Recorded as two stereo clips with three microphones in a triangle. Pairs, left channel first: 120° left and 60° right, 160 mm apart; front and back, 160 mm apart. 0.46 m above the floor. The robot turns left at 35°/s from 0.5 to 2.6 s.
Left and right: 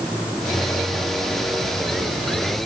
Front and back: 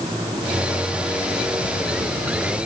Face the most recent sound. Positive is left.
No sound to turn to.